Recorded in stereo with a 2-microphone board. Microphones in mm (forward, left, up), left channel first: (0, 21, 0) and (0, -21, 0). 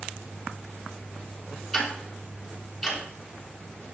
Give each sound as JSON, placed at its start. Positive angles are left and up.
{"t": 1.7, "sound": "ticking", "side_deg": 0, "distance_m": 2.5}